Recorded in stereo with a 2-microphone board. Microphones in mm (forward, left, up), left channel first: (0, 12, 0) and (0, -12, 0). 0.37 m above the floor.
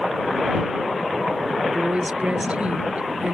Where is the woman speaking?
55° right (ahead or behind).